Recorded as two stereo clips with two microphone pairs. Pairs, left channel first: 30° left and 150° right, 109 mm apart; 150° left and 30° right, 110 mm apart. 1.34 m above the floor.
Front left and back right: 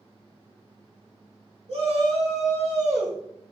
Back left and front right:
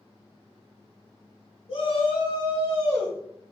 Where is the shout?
175° right, 2.5 m; by 3.5 s 150° right, 3 m.